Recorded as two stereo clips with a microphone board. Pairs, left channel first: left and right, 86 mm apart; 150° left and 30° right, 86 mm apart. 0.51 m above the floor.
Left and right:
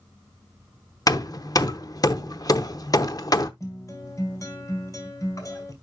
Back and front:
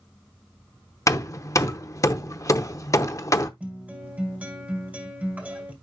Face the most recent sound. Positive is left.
turn(degrees=40)